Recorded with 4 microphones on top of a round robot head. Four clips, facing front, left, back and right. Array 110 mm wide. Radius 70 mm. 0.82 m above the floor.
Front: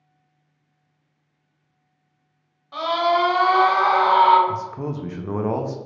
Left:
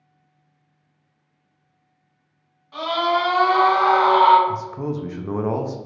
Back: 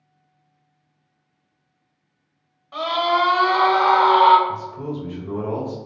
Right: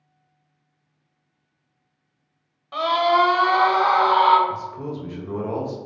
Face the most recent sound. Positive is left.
turn(degrees=40)